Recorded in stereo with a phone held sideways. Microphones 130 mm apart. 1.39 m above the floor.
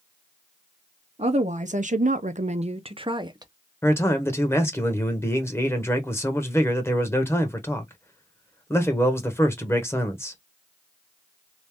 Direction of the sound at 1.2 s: 55° right (ahead or behind).